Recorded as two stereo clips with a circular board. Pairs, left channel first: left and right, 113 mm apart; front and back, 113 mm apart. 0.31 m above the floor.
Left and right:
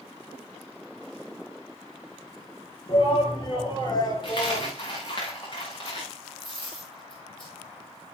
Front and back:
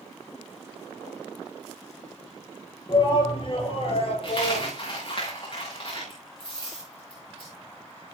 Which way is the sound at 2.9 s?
45° left.